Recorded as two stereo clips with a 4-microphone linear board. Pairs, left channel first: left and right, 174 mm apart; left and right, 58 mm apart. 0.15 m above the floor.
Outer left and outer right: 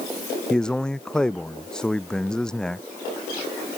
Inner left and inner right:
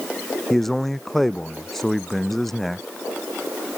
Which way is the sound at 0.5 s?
5° left (ahead or behind).